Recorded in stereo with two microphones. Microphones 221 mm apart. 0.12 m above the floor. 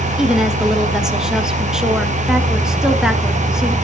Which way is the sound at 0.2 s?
5° right (ahead or behind).